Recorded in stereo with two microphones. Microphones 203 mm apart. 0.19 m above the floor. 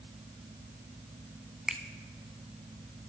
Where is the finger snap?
5° right (ahead or behind), 0.9 m.